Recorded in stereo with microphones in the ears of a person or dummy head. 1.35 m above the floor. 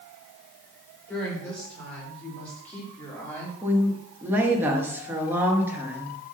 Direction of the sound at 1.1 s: 5° left (ahead or behind).